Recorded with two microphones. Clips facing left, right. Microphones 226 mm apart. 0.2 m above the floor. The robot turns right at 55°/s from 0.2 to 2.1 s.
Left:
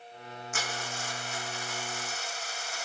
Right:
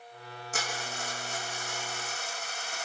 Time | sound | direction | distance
0.5 | a dropped coin | 145° right | 4 m